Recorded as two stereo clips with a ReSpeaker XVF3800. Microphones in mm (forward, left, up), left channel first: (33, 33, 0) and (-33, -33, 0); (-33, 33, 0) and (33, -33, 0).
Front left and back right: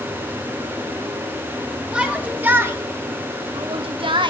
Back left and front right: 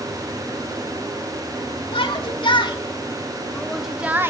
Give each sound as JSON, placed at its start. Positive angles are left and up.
{"t": 1.9, "sound": "a shout", "azimuth_deg": 150, "distance_m": 3.0}